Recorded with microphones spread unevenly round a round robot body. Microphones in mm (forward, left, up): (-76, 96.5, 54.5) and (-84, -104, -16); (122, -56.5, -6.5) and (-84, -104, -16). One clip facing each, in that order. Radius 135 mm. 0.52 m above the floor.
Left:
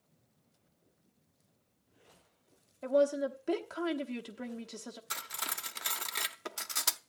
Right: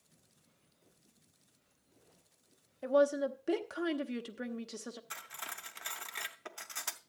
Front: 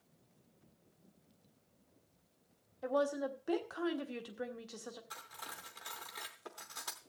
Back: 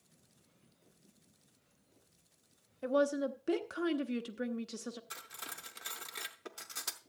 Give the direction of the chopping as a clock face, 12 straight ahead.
I don't hear chopping.